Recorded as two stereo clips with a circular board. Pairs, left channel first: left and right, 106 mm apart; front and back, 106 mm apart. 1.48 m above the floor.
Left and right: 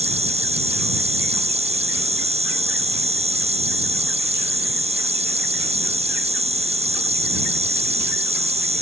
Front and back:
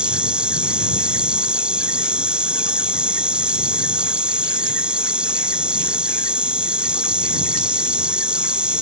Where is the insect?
100° right.